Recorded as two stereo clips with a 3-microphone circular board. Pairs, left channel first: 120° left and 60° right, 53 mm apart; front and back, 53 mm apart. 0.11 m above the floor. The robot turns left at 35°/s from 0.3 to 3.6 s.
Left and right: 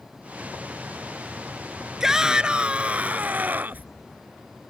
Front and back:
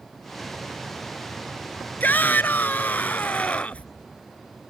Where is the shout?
15° left; by 3.9 s 45° right.